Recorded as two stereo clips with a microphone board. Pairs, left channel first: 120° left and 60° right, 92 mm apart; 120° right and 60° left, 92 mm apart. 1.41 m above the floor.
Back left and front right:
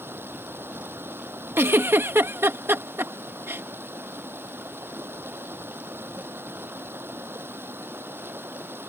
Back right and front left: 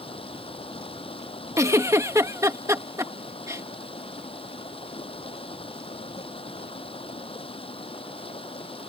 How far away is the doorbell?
I don't hear a doorbell.